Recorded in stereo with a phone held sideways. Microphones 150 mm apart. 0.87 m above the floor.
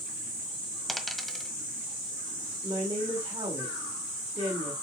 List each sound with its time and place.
0.9 s a dropped coin: centre (ahead or behind), 1.3 m
2.6 s a woman speaking: 45° right (ahead or behind), 2 m